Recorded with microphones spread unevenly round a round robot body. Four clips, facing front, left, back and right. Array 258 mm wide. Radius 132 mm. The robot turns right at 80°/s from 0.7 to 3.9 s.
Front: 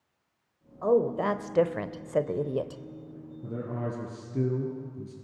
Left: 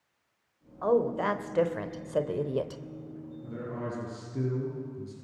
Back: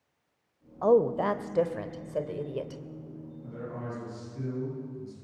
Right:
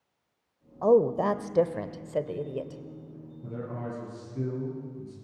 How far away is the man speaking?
About 6 m.